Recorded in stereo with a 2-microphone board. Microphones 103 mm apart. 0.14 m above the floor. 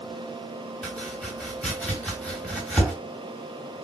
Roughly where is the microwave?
No microwave in this recording.